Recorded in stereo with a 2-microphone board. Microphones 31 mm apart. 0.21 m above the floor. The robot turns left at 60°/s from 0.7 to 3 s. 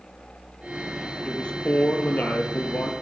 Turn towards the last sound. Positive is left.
turn(degrees=50)